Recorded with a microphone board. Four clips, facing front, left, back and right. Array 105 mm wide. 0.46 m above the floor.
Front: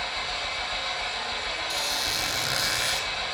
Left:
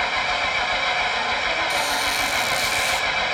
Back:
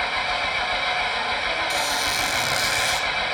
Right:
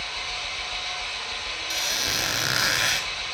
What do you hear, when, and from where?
0.0 s an engine running: 120° left, 1.9 m
1.7 s a squeak: 95° right, 2 m